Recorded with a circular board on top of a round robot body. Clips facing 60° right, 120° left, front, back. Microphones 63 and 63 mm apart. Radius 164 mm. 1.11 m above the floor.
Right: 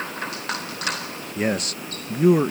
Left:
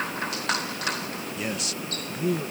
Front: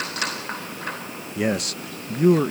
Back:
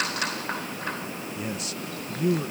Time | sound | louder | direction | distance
1.4 | a man speaking | right 10 dB, front 12 dB | 15° right | ?